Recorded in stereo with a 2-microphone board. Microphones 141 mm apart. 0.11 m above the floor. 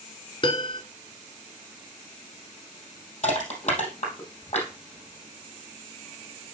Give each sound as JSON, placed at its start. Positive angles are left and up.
{"t": 0.4, "sound": "a piano", "side_deg": 35, "distance_m": 0.9}
{"t": 3.2, "sound": "crushing", "side_deg": 55, "distance_m": 3.5}